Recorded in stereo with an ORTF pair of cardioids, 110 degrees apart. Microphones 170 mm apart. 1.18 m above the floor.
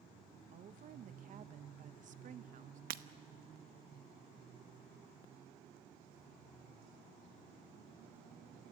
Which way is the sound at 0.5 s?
50° right.